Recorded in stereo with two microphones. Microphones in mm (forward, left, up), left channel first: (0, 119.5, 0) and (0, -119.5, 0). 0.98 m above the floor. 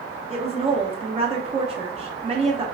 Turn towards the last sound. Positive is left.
turn(degrees=-25)  # may be behind; listen again after turning